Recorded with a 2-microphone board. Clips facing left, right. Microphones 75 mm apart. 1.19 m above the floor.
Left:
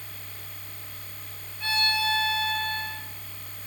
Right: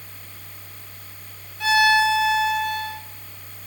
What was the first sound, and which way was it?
A violin, 80° right.